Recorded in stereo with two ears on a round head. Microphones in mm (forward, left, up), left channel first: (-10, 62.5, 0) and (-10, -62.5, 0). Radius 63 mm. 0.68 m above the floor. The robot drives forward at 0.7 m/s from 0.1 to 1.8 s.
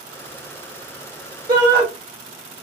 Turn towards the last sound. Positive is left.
turn(degrees=-30)  # may be behind; listen again after turning